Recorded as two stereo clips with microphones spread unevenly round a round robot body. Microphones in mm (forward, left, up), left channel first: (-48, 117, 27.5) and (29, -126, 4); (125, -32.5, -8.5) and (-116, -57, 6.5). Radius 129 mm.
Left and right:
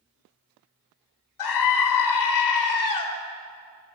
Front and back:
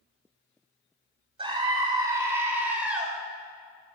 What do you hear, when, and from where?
1.4 s a scream: 115° left, 4 m; by 3.1 s 100° left, 4 m